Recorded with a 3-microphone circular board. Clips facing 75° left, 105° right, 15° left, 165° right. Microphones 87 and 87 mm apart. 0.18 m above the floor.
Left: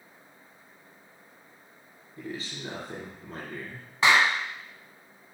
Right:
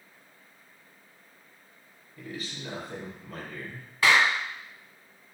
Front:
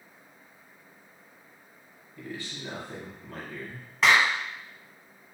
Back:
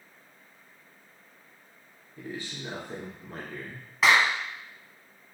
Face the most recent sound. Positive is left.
turn(degrees=115)